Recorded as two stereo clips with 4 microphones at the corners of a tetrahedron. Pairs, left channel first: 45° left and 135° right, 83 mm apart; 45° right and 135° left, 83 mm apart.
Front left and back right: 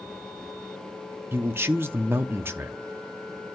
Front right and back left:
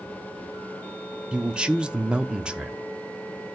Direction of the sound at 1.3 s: 160° right.